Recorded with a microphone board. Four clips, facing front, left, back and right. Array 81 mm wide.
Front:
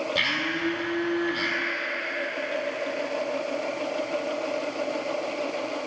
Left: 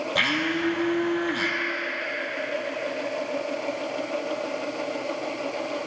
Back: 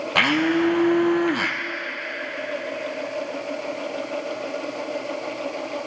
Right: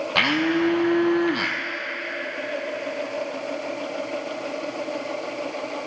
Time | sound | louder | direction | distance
0.1 | a blender | right 6 dB, back 8 dB | 155° right | 1.4 m